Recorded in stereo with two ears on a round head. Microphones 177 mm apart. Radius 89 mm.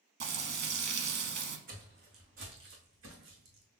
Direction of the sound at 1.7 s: 50° right (ahead or behind).